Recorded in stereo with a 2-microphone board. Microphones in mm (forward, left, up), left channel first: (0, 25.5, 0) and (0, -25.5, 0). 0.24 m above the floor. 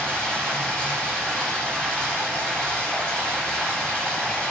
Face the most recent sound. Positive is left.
turn(degrees=15)  # may be behind; listen again after turning